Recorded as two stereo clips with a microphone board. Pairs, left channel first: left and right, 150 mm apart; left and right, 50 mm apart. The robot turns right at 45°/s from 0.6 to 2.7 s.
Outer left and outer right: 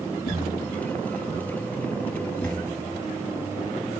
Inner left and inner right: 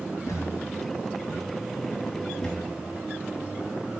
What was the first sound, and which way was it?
A thud, 90° left.